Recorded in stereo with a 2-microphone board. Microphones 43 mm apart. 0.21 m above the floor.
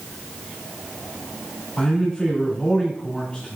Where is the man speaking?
20° left (ahead or behind), 1.6 m.